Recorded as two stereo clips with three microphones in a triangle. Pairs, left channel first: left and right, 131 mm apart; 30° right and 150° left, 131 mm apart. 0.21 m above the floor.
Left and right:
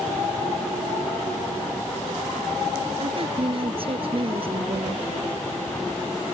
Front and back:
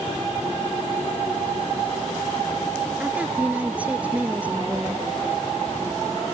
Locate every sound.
3.0 s a woman speaking: 130° right